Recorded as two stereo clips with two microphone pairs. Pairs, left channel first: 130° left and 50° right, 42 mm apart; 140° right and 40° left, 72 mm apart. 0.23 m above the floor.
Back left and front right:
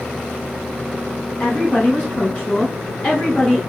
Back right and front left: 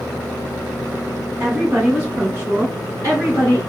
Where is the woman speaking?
110° left, 1.9 m; by 3.6 s 70° left, 2.5 m.